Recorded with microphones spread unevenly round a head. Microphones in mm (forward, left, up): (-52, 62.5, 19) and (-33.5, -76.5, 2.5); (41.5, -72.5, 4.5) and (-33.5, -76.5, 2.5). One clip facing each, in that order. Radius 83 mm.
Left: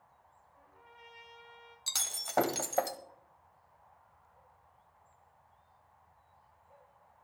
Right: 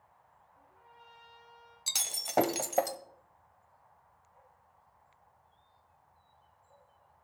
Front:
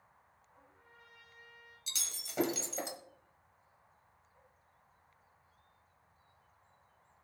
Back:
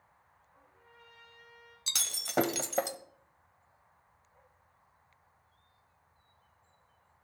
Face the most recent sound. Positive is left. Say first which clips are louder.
# right 1 dB, back 7 dB
turn(degrees=-160)